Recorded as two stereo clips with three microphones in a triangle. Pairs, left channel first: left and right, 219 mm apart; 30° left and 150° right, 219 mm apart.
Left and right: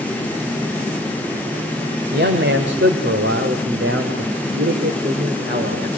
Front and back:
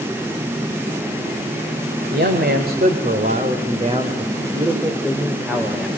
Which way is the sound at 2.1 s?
120° right.